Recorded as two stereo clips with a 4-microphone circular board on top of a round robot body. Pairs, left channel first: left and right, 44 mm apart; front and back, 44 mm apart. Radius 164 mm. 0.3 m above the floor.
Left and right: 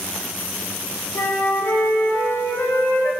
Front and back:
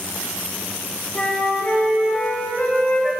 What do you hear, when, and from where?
1.1 s a flute: 70° left, 2.5 m